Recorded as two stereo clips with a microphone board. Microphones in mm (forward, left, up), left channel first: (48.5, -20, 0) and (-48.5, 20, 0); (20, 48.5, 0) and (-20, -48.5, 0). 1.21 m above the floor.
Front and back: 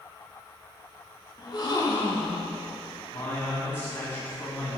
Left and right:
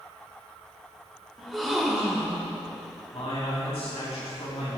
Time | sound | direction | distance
1.4 | a gasp | 25° right | 0.9 m
3.1 | a man speaking | 50° left | 1.9 m